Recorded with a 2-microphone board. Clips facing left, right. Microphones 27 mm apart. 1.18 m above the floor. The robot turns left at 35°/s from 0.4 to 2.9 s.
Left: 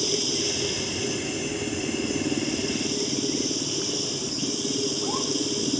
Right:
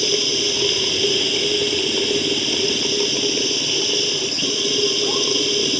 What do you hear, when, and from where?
0.0 s running water: 40° right; by 5.8 s 125° right